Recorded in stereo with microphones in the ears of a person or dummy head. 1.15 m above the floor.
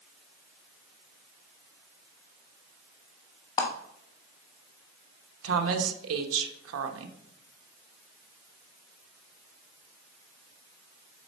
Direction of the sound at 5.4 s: 85° right.